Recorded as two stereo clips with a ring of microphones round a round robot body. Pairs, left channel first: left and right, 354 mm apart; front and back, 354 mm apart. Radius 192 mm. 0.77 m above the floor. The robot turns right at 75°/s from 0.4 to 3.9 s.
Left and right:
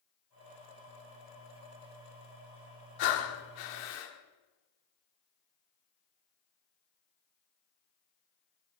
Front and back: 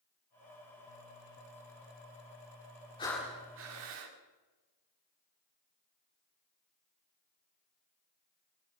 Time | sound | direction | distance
3.0 | breathing | 75° left | 1.9 m